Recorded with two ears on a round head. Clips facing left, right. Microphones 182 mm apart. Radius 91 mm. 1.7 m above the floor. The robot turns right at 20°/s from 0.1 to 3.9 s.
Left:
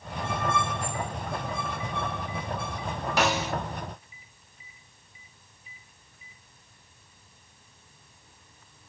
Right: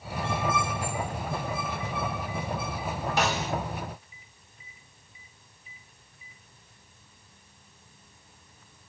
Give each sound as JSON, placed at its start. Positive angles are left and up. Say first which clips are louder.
{"t": 3.2, "sound": "a snare drum", "louder": "left 3 dB", "side_deg": 60, "distance_m": 1.2}